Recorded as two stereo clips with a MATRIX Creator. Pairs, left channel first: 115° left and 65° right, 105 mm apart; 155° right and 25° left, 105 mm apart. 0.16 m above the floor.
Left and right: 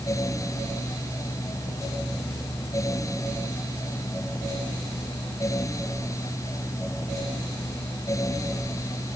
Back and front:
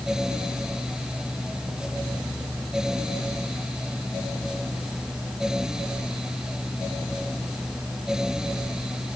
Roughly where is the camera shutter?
No camera shutter in this recording.